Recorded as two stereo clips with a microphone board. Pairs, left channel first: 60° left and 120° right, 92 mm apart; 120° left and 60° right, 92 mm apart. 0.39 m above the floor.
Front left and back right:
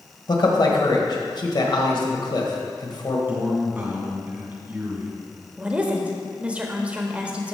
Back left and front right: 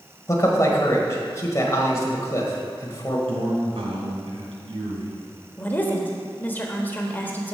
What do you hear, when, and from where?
0.3 s a man speaking: 75° left, 1.8 m
3.3 s a man speaking: 50° right, 2.5 m
5.6 s a woman speaking: 175° left, 1.4 m